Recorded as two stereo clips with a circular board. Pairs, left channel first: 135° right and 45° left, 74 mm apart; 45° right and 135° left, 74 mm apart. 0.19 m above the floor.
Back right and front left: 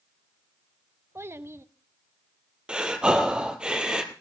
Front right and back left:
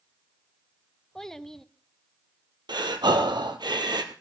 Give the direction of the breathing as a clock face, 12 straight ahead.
8 o'clock.